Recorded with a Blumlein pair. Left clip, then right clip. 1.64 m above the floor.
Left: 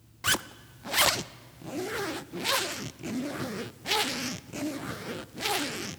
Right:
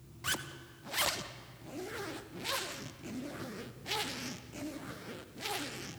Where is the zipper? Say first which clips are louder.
Left 8 dB; 65° left, 0.6 m.